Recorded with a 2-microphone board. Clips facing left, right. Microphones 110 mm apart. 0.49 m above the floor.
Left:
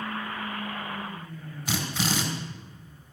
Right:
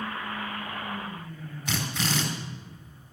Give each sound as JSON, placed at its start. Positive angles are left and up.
{"t": 1.7, "sound": "a drill", "side_deg": 5, "distance_m": 3.0}